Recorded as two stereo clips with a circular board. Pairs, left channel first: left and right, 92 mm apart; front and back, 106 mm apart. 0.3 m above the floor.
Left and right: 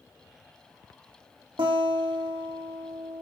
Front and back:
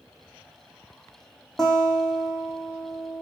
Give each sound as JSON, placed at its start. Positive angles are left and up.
{"t": 1.6, "sound": "a guitar", "azimuth_deg": -85, "distance_m": 6.0}